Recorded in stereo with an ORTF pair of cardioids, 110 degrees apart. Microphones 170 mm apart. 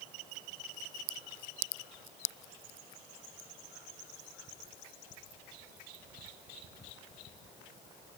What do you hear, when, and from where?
Only background noise.